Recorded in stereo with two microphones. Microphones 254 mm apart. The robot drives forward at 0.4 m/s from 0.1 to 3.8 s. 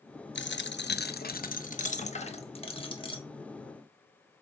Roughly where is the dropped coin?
Left.